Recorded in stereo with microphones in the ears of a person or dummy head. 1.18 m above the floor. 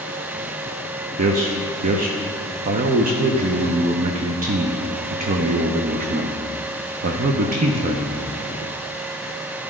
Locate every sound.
1.2 s a man speaking: 40° right (ahead or behind), 0.5 m